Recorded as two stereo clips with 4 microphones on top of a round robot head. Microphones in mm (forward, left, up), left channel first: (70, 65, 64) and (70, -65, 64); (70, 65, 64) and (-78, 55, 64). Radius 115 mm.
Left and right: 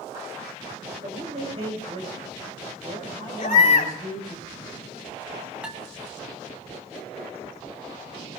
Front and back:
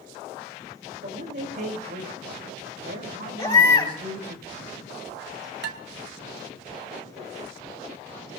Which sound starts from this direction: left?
A baby crying, at 3.4 s.